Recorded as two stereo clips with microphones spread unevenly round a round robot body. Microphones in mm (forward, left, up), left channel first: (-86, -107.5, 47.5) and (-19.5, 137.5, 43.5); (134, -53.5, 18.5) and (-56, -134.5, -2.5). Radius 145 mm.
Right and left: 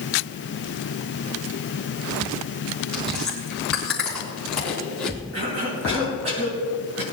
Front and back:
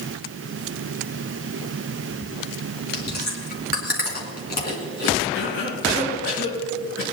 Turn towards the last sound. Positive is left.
turn(degrees=35)